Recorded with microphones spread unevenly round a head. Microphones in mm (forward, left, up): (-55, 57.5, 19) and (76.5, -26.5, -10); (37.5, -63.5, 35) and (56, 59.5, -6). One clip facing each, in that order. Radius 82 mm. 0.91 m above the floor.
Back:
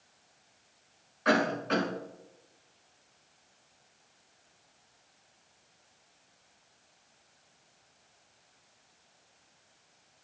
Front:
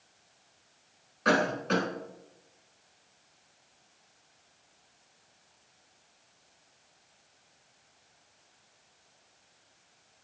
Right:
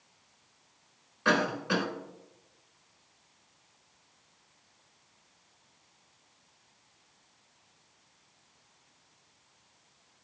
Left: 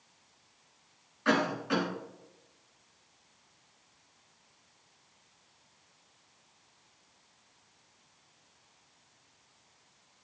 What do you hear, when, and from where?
1.2 s a cough: 80° right, 3.5 m